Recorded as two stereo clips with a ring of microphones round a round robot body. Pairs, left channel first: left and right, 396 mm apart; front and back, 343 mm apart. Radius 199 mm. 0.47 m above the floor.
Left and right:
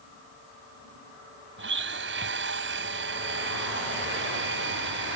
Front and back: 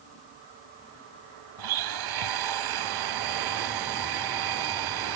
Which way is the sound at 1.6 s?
150° right.